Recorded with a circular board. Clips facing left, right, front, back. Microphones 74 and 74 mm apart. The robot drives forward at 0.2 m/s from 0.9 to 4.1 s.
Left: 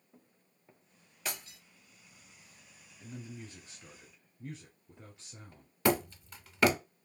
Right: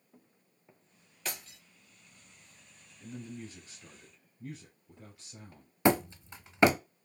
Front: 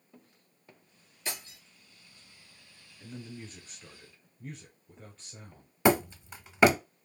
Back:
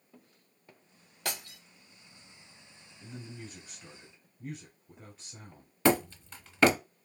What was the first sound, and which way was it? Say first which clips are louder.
Breaking glass: even, back 3 dB; 175° left.